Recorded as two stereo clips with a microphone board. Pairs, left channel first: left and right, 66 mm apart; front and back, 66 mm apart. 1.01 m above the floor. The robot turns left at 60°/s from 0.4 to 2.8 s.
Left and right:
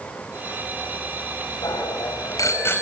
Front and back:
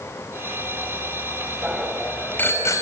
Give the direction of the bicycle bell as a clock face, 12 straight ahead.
9 o'clock.